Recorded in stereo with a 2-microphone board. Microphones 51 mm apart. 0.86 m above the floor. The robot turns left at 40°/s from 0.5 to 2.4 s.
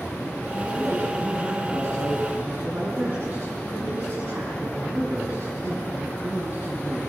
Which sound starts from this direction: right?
A man speaking, at 0.5 s.